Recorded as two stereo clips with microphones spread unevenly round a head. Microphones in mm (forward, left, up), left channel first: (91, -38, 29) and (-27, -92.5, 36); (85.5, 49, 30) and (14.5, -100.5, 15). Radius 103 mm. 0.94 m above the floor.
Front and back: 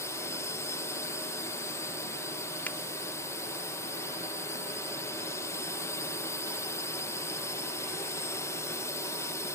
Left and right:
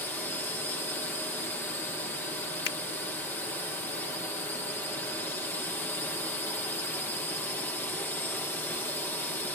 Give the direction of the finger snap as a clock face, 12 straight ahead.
8 o'clock.